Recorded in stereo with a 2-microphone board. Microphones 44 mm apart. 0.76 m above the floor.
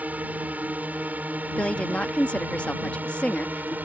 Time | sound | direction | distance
0.0 | a drone | 35° right (ahead or behind) | ?
1.6 | a woman speaking | 25° left (ahead or behind) | ?